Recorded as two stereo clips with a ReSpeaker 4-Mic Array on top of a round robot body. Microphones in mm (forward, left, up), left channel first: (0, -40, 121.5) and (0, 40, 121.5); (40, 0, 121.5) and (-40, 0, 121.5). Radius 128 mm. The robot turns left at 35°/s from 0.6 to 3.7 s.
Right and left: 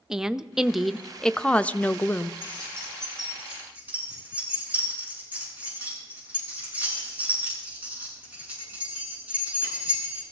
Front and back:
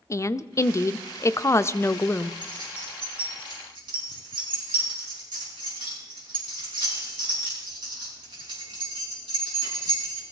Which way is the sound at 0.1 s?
10° left.